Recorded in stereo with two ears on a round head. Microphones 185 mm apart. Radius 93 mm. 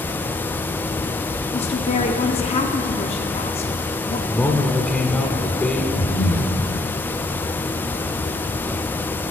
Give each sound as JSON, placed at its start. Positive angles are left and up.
{"t": 1.5, "sound": "a woman speaking", "side_deg": 30, "distance_m": 1.0}
{"t": 4.3, "sound": "a man speaking", "side_deg": 5, "distance_m": 1.6}
{"t": 6.0, "sound": "breathing", "side_deg": 65, "distance_m": 4.0}